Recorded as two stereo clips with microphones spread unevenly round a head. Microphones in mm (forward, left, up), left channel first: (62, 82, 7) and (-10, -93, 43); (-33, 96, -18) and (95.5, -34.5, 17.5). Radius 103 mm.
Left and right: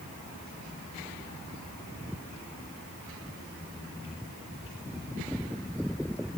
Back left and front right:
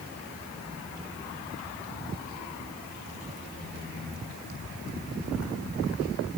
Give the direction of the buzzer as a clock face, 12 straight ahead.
No buzzer in this recording.